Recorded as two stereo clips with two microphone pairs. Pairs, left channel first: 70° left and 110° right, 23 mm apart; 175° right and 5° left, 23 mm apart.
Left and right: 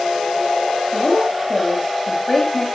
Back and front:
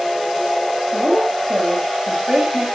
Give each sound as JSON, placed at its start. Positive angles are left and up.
{"t": 0.9, "sound": "a woman speaking", "azimuth_deg": 5, "distance_m": 5.0}